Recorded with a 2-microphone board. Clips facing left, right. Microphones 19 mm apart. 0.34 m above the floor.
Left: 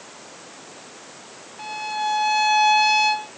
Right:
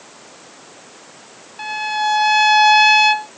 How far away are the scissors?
I don't hear scissors.